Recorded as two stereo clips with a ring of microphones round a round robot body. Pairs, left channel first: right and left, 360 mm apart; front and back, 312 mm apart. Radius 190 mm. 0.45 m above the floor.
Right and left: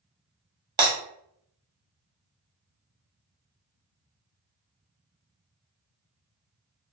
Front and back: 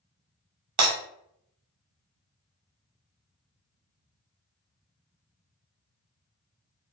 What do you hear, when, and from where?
0.8 s breaking glass: 165° left, 0.8 m